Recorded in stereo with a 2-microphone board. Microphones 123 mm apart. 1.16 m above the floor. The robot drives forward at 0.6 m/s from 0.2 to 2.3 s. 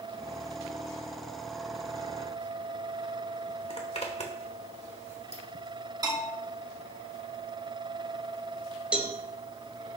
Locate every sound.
3.7 s a zipper: 60° left (ahead or behind), 1.3 m
6.0 s a bell: 35° right (ahead or behind), 2.5 m
8.9 s a cowbell: 10° right (ahead or behind), 1.0 m